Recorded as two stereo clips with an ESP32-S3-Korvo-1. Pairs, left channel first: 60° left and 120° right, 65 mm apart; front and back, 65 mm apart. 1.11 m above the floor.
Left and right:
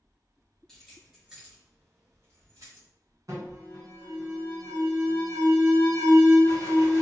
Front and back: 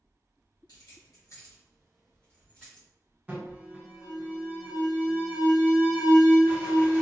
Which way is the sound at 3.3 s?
110° right.